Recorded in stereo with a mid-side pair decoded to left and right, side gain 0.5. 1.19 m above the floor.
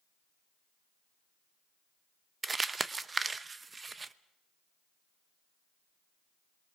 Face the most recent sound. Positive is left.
turn(degrees=-25)